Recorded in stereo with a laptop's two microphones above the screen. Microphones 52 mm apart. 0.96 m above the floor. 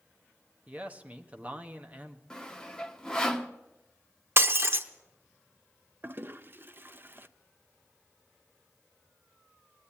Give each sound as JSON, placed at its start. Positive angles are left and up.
{"t": 0.7, "sound": "a man speaking", "side_deg": -25, "distance_m": 0.9}
{"t": 2.3, "sound": "sawing", "side_deg": 10, "distance_m": 0.7}
{"t": 4.4, "sound": "breaking glass", "side_deg": -50, "distance_m": 0.7}
{"t": 6.0, "sound": "a toilet flushing", "side_deg": -40, "distance_m": 0.5}